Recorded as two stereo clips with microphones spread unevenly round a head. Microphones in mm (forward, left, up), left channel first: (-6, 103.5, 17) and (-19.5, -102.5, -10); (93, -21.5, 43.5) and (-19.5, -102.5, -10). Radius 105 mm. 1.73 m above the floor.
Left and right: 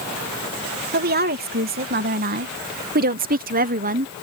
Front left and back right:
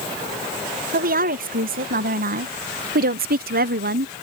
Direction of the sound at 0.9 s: 140° right.